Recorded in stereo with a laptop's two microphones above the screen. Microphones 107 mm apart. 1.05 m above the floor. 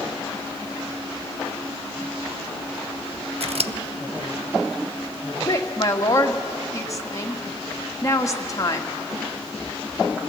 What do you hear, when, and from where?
3.4 s scissors: 70° right (ahead or behind), 0.6 m
5.4 s a woman speaking: 30° left (ahead or behind), 1.8 m